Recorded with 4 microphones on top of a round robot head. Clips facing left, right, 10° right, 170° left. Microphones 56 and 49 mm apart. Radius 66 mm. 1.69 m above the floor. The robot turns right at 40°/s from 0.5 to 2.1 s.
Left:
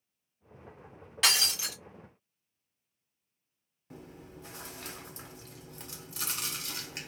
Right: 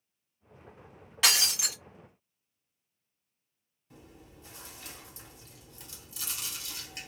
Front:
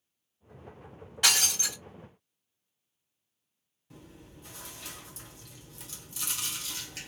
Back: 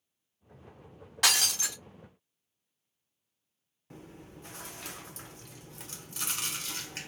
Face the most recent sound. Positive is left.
turn(degrees=130)